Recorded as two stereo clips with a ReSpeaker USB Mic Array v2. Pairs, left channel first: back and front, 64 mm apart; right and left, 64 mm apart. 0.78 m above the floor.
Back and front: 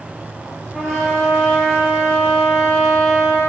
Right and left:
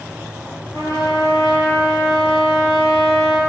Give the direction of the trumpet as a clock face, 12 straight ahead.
3 o'clock.